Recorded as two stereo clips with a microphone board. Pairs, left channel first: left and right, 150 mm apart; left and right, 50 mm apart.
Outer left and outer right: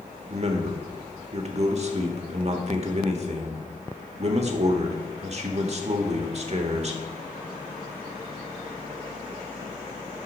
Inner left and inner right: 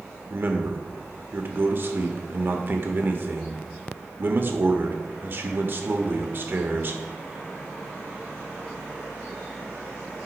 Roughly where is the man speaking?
Right.